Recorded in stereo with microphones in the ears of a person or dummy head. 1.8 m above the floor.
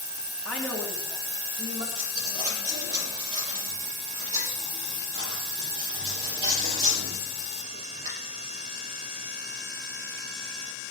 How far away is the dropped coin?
About 5 m.